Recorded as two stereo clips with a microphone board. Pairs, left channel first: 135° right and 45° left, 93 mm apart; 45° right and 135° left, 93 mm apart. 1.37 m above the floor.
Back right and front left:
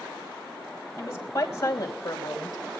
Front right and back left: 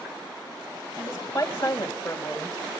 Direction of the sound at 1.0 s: 80° right.